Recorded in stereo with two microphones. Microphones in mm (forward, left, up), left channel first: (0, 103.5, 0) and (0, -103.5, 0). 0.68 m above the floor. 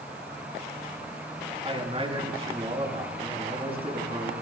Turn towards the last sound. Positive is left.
turn(degrees=-30)  # may be behind; listen again after turning